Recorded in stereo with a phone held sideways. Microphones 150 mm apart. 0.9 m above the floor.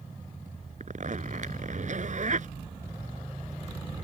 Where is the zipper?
55° right (ahead or behind).